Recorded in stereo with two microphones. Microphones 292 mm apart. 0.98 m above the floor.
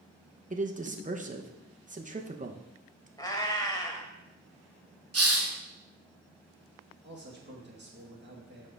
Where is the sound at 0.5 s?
25° right (ahead or behind), 0.7 m.